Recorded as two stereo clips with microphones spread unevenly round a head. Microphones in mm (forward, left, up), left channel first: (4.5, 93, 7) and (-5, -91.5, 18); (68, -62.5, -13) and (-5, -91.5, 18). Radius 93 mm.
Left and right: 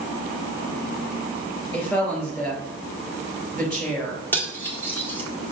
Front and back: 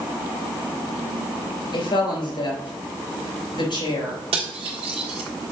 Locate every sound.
1.7 s a woman speaking: 5° left, 3.5 m
4.3 s cutlery clinking: 165° left, 1.5 m